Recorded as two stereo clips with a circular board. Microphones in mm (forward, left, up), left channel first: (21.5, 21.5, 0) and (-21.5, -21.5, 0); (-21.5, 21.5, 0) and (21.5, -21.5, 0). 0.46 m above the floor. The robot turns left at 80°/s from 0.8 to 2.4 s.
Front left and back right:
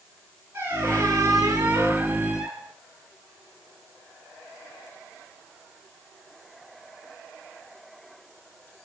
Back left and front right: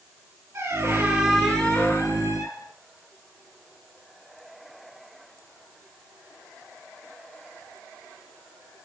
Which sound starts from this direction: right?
A squeak, at 0.5 s.